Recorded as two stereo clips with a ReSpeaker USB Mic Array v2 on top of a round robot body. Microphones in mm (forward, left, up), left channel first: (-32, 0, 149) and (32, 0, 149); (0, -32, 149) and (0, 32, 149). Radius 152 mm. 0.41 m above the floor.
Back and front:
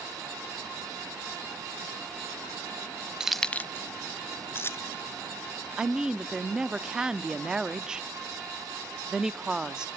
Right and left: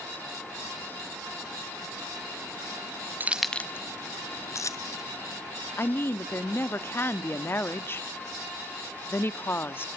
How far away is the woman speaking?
About 1.0 m.